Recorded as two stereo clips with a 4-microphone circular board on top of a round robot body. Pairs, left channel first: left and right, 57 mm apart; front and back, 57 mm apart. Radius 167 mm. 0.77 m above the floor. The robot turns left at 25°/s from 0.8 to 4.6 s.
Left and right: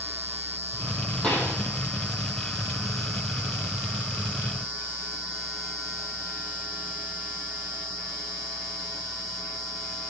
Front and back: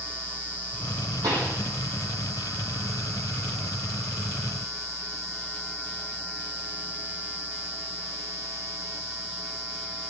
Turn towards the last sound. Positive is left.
turn(degrees=80)